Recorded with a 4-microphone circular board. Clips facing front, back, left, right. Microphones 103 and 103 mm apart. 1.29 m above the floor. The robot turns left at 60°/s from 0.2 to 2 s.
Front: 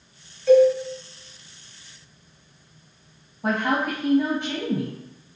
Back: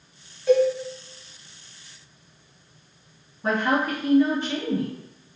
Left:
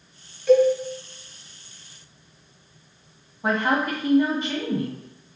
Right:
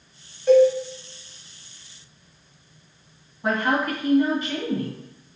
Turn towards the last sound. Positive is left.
turn(degrees=25)